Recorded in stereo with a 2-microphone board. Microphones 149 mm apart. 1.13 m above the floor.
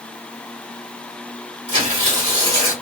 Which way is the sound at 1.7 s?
40° right (ahead or behind).